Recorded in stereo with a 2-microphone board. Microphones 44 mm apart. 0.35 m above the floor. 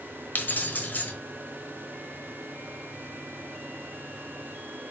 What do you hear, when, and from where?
0.3 s keys jangling: 50° left (ahead or behind), 0.9 m